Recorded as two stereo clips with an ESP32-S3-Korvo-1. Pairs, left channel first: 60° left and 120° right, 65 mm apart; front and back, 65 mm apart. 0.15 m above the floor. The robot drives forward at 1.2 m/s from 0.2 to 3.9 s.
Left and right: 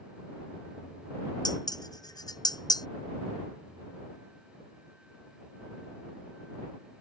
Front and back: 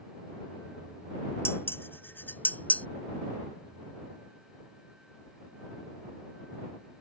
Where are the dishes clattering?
55° left; by 2.9 s 70° left.